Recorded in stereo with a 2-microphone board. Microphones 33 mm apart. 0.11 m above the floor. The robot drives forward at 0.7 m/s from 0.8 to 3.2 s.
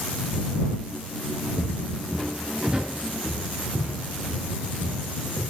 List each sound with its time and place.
1.6 s footsteps: 45° left (ahead or behind), 1.3 m; by 5.4 s 70° right (ahead or behind), 4 m